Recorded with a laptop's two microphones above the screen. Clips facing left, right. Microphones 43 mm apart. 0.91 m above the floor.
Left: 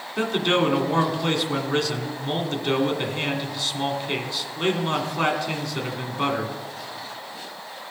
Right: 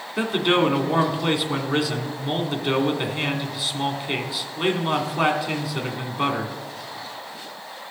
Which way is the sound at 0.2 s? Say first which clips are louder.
Right 1 dB; 10° right (ahead or behind).